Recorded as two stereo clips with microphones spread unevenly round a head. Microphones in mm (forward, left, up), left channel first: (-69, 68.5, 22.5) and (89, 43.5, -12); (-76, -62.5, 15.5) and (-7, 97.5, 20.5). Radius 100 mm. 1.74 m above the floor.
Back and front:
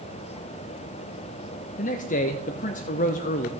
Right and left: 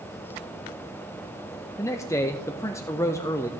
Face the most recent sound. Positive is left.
turn(degrees=175)